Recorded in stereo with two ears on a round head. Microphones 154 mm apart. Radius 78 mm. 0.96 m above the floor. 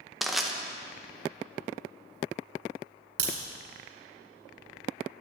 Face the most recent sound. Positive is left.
turn(degrees=-80)